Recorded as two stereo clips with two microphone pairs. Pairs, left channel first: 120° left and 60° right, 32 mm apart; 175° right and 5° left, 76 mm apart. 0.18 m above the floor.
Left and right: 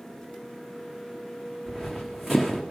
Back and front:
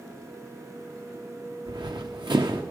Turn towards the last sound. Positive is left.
turn(degrees=20)